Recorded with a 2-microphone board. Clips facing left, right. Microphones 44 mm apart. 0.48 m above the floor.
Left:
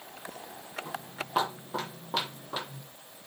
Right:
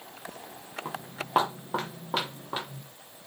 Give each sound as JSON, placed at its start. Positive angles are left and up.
{"t": 0.8, "sound": "footsteps", "side_deg": -45, "distance_m": 3.0}